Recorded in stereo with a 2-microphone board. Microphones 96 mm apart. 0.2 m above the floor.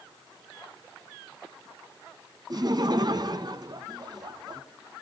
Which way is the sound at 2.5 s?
45° right (ahead or behind).